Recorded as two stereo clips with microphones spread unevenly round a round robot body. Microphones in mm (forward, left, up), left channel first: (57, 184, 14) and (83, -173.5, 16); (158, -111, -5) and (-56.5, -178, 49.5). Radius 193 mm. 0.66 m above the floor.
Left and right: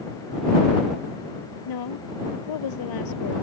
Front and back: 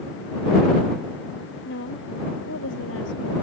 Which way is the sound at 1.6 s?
75° left.